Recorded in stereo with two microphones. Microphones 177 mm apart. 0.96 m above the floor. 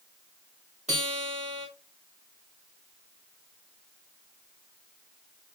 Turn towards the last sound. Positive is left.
turn(degrees=-35)  # may be behind; listen again after turning